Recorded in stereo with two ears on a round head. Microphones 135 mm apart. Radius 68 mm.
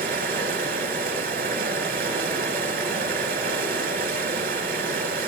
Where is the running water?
65° right (ahead or behind), 3 m.